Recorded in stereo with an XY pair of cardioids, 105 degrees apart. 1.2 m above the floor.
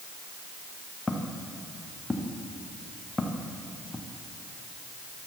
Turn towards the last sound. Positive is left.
turn(degrees=15)